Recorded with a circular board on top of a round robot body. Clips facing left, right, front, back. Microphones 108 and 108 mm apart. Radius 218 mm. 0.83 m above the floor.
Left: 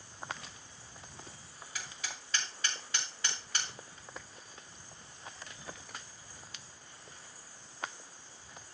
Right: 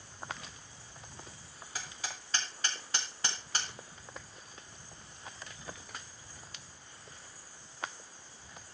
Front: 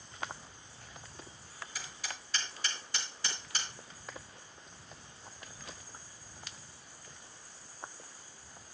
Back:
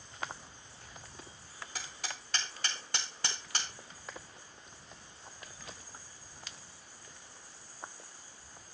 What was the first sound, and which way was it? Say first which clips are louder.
Hammering: right 2 dB, back 2 dB; 145° right.